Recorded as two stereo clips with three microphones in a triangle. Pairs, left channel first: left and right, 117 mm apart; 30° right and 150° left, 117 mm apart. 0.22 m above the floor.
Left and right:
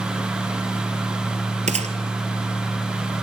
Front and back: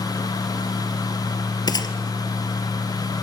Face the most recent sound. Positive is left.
turn(degrees=-85)